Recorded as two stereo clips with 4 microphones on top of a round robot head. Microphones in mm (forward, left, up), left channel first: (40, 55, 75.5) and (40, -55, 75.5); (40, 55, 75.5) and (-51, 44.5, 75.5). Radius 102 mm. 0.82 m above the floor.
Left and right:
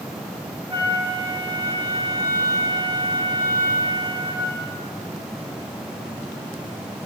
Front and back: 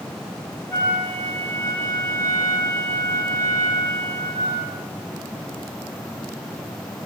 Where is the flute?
60° right, 0.9 m.